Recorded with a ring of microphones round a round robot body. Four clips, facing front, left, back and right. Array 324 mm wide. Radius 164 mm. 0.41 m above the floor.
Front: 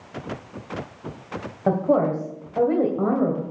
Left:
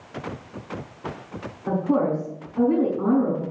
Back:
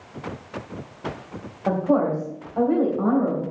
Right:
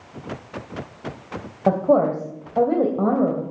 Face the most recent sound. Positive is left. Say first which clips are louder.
# right 5 dB, front 1 dB
turn(degrees=-70)